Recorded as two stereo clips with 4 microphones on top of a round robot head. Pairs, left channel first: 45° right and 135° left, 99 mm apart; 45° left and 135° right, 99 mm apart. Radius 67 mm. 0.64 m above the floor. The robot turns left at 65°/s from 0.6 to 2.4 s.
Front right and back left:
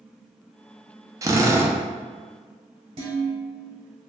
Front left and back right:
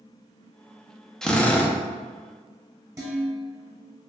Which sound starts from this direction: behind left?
A drill, at 1.2 s.